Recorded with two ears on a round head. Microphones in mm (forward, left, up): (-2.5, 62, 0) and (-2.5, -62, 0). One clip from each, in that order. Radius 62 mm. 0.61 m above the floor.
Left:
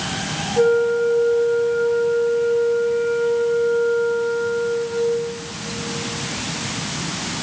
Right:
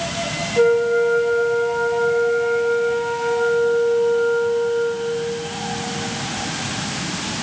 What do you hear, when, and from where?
0.6 s a flute: 20° right (ahead or behind), 1.8 m